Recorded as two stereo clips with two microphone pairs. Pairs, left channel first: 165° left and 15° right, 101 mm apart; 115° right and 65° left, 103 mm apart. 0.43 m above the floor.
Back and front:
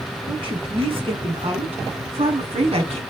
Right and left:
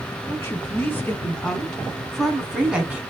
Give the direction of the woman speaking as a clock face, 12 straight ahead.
2 o'clock.